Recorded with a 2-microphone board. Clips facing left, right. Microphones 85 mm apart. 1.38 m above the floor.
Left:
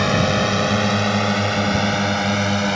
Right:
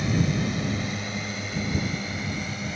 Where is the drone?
80° left; by 2.8 s 75° left (ahead or behind).